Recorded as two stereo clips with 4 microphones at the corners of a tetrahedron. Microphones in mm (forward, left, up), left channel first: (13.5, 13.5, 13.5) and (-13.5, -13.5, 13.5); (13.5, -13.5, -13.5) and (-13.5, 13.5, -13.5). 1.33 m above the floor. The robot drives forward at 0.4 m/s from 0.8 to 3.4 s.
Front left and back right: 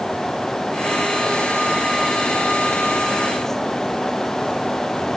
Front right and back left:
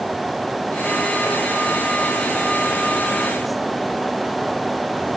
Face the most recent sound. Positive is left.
No sound to turn to.